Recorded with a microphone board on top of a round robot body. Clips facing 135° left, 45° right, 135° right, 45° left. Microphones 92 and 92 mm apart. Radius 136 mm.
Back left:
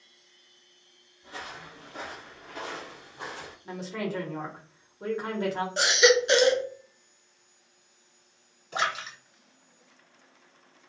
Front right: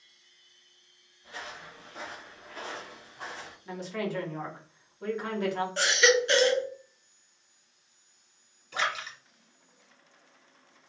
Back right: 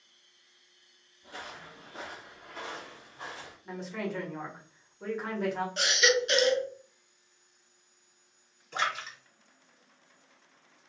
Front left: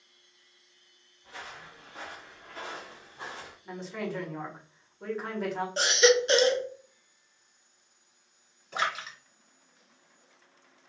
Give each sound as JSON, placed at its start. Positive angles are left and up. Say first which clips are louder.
{"t": 1.2, "sound": "footsteps", "louder": "back left 1 dB, back right 1 dB", "azimuth_deg": -165, "distance_m": 0.8}
{"t": 3.6, "sound": "a woman speaking", "louder": "even, even", "azimuth_deg": 135, "distance_m": 1.1}
{"t": 5.8, "sound": "a baby crying", "louder": "back left 3 dB, front left 6 dB", "azimuth_deg": 75, "distance_m": 0.5}
{"t": 8.7, "sound": "a splash", "louder": "back left 2 dB, front left 1 dB", "azimuth_deg": 115, "distance_m": 1.7}